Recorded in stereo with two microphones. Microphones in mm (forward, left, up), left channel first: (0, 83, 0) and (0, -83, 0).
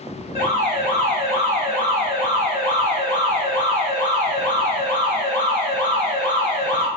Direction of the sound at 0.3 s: 35° right (ahead or behind).